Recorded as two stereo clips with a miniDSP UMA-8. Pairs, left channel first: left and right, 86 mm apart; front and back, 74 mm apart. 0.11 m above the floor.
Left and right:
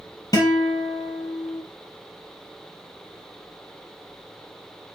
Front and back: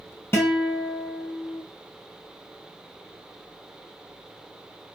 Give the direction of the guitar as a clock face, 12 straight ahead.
10 o'clock.